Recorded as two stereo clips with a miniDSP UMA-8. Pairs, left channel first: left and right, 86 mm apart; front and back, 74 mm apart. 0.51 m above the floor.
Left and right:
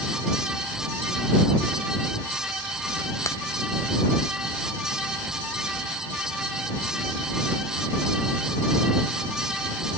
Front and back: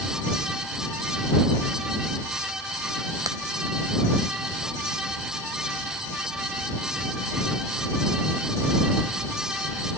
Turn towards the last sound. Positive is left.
turn(degrees=145)